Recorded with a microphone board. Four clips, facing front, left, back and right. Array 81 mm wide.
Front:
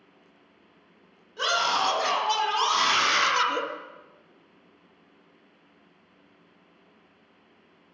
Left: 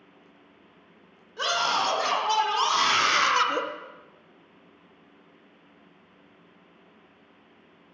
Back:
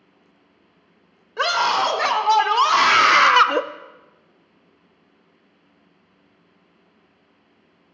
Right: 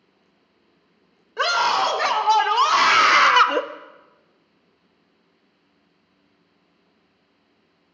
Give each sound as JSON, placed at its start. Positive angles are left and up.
{"t": 1.4, "sound": "a scream", "azimuth_deg": -135, "distance_m": 2.5}